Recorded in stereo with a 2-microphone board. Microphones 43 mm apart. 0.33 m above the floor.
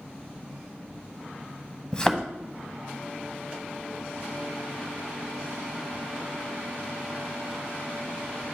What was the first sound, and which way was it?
A thud, 20° left (ahead or behind).